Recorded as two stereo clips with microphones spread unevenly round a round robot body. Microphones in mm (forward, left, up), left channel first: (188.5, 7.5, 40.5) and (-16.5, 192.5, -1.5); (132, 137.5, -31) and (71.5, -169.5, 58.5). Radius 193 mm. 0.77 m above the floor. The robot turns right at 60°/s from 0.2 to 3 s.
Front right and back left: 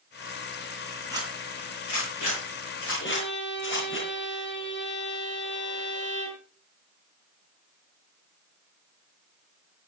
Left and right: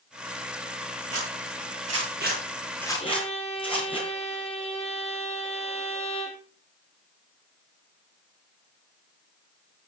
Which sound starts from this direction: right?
A zipper, at 1.1 s.